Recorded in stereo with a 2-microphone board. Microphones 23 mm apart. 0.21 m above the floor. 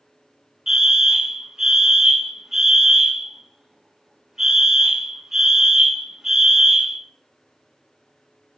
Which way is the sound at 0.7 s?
25° right (ahead or behind).